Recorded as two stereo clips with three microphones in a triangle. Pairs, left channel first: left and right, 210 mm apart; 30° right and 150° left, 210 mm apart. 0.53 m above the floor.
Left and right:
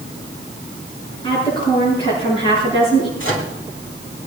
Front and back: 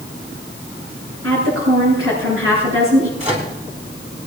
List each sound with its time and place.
1.2 s a woman speaking: 155° left, 8.5 m
3.2 s a microwave: 90° left, 4 m